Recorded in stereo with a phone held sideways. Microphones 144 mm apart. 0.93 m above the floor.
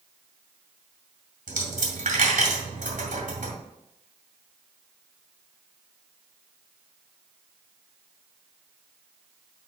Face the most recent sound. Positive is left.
turn(degrees=-70)  # may be behind; listen again after turning